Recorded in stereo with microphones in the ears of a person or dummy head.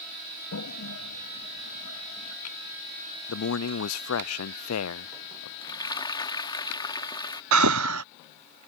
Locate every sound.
0.5 s a toilet flushing: 80° left
3.3 s a man speaking: 65° left (ahead or behind)
5.6 s frying: 15° left (ahead or behind)
7.5 s breathing: 80° right